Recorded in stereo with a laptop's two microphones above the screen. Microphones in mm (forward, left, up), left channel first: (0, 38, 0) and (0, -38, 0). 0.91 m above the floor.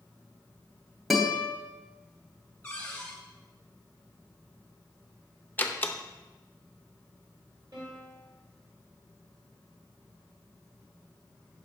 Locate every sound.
1.1 s a guitar: centre (ahead or behind), 0.8 m
2.6 s a cupboard door: 20° left (ahead or behind), 1.2 m
5.6 s a door slam: 25° left (ahead or behind), 0.5 m
7.7 s a piano: 65° right (ahead or behind), 1.7 m